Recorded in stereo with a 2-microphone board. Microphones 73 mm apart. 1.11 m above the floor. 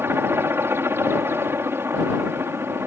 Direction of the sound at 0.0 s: 35° right (ahead or behind).